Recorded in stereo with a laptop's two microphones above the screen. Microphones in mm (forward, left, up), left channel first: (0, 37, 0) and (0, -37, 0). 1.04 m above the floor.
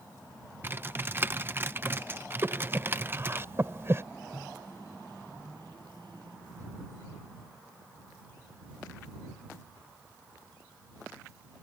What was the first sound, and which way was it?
Typing on a keyboard, 30° right (ahead or behind).